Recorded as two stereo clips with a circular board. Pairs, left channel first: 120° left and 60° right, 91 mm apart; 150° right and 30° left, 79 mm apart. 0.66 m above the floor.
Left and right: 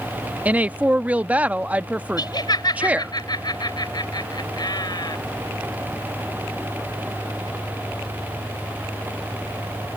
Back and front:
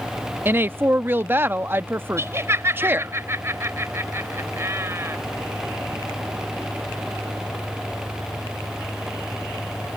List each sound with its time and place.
0.5 s a woman speaking: straight ahead
2.2 s laughter: 85° left